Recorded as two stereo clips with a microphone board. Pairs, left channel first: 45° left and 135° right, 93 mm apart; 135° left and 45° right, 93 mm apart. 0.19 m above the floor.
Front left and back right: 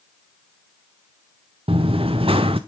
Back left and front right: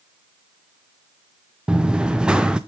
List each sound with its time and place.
1.7 s running footsteps: 125° right, 1.2 m